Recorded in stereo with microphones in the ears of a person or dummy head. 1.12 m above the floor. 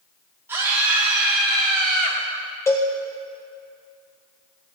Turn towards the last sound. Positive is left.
turn(degrees=15)  # may be behind; listen again after turning